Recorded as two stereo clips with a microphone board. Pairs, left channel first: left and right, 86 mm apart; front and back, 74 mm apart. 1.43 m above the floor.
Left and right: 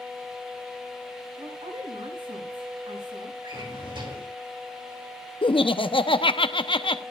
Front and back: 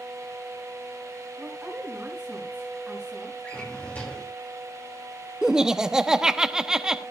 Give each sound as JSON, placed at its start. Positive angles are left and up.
{"t": 1.4, "sound": "a woman speaking", "azimuth_deg": -105, "distance_m": 7.0}
{"t": 3.4, "sound": "a drawer", "azimuth_deg": -70, "distance_m": 5.0}
{"t": 5.4, "sound": "laughter", "azimuth_deg": 100, "distance_m": 0.9}